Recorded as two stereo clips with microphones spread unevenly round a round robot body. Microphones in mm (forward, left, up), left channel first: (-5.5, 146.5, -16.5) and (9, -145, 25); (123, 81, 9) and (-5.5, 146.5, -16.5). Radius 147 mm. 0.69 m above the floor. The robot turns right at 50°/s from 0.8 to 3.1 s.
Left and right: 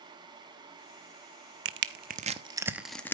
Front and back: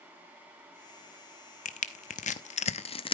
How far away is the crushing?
About 0.7 m.